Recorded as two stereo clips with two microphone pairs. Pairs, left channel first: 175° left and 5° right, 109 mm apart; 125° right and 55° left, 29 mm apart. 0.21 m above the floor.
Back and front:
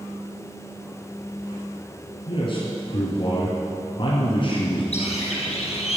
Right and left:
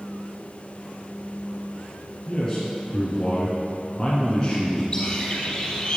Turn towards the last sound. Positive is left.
turn(degrees=175)